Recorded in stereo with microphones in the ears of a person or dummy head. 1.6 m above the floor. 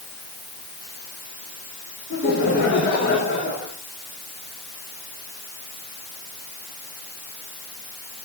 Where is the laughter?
60° left (ahead or behind), 5 m; by 3.7 s 55° left (ahead or behind), 5.5 m.